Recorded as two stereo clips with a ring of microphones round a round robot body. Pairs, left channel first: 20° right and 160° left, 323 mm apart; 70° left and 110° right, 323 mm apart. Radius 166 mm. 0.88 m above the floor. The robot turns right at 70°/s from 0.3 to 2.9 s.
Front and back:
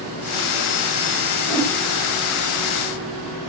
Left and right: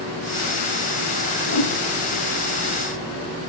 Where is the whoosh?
50° left, 1.3 m; by 1.7 s 70° left, 1.3 m.